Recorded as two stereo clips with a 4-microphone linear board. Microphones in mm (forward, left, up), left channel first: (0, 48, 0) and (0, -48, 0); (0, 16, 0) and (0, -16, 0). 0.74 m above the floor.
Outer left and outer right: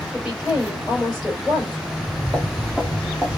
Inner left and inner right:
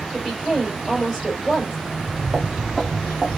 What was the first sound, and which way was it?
A woman speaking, 5° right (ahead or behind).